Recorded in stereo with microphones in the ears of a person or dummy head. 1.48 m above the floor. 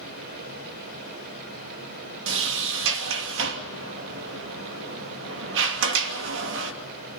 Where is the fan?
50° right (ahead or behind), 4 m.